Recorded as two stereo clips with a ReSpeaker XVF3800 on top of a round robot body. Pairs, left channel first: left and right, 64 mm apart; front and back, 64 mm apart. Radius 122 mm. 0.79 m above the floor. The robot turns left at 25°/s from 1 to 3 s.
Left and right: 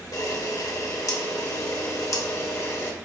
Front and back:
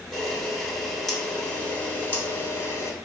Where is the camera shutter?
85° left, 1.2 m; by 2.9 s 40° left, 1.2 m.